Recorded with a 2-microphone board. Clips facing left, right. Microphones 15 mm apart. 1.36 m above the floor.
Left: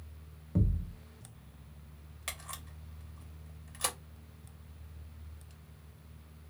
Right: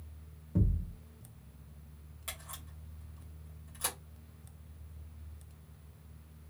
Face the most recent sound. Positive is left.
turn(degrees=30)  # may be behind; listen again after turning